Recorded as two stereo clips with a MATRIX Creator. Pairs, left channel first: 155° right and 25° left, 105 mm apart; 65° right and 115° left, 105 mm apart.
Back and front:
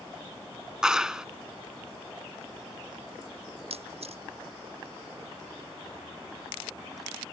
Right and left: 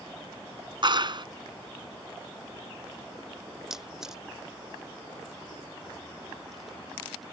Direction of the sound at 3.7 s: 25° left.